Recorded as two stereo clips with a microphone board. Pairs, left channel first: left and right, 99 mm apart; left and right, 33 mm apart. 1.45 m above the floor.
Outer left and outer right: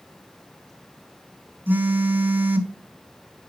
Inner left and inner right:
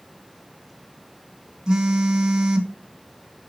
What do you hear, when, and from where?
1.7 s a phone buzzing: 20° right (ahead or behind), 1.2 m